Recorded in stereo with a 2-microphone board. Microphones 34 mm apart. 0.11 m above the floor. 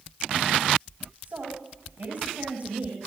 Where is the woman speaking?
45° right (ahead or behind), 9.5 m; by 3.0 s 40° right (ahead or behind), 10.5 m.